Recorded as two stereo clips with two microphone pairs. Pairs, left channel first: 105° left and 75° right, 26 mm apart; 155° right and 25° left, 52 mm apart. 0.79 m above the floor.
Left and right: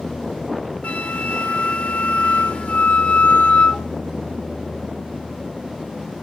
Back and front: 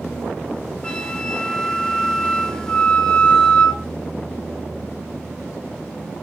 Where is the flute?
125° left, 1.9 m.